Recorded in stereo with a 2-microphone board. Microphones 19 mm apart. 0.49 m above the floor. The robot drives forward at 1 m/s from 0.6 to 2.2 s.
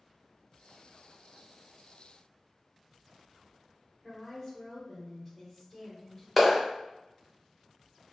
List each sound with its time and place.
4.0 s a woman speaking: 20° left (ahead or behind), 1.2 m
6.4 s a clap: centre (ahead or behind), 0.9 m